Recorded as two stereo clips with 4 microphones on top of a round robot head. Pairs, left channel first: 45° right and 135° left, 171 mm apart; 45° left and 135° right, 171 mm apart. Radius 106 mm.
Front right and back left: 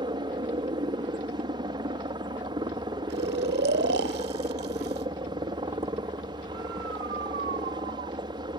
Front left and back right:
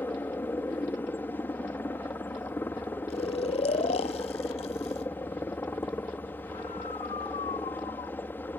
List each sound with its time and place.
0.0 s a helicopter: 110° left
3.1 s snoring: 105° left